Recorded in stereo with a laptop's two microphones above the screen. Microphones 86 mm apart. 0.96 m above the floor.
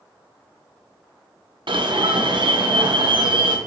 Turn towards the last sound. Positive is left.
turn(degrees=-70)  # may be behind; listen again after turning